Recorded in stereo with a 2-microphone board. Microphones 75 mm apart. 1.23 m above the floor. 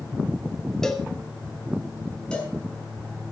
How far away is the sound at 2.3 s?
About 5.5 m.